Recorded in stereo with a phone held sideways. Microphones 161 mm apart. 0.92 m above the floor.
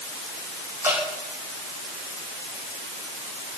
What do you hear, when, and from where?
0.8 s dripping: 20° right (ahead or behind), 8 m